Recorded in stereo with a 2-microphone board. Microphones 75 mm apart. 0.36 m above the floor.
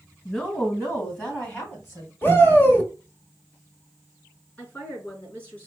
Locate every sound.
0.2 s a woman speaking: 15° left (ahead or behind), 2 m; by 2.1 s 35° left (ahead or behind), 2.5 m
2.2 s a shout: 30° left (ahead or behind), 1.4 m
4.6 s a woman speaking: 25° left (ahead or behind), 3 m